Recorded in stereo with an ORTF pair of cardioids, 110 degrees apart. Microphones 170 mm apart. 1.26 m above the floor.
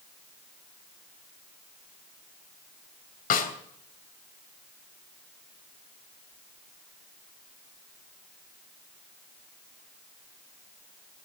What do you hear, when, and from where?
3.3 s a snare drum: 60° left, 3 m